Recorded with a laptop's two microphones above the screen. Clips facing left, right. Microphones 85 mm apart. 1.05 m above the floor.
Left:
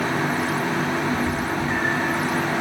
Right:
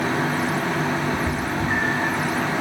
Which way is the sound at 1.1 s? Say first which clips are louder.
Left 1 dB; 45° right (ahead or behind).